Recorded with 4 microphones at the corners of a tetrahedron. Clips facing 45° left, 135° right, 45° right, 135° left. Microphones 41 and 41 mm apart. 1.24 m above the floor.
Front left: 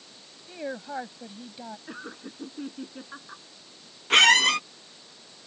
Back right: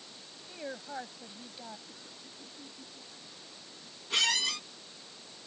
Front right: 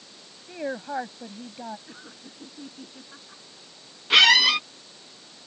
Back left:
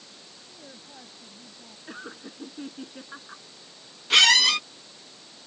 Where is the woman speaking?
25° right.